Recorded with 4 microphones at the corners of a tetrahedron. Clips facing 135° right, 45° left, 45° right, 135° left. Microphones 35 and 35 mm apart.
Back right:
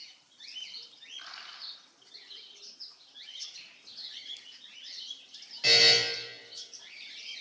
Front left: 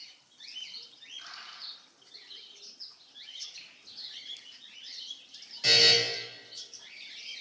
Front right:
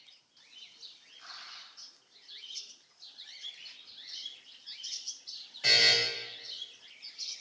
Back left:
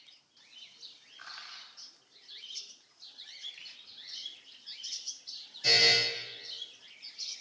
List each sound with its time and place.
1.2 s crushing: 165° left, 1.2 m
3.6 s a finger snap: 105° left, 1.0 m
5.6 s a buzzer: 60° right, 1.4 m